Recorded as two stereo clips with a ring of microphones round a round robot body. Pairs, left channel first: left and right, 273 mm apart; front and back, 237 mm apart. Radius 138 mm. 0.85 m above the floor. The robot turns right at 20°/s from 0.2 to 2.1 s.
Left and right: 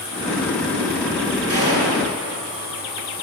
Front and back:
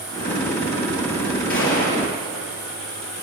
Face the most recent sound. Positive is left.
turn(degrees=-40)